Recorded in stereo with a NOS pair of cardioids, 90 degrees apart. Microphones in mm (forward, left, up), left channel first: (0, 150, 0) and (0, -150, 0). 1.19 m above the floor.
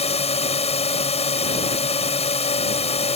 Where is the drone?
20° left.